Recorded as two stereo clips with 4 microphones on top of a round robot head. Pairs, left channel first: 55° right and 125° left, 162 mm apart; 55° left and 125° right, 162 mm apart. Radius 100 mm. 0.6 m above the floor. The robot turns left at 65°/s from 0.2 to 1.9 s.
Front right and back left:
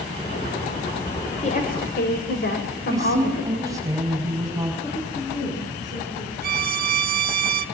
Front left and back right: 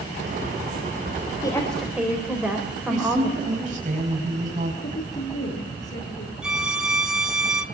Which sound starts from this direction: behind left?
A violin, at 6.4 s.